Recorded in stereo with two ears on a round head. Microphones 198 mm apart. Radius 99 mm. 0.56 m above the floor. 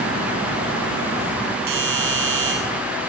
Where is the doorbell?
65° right (ahead or behind), 8 m.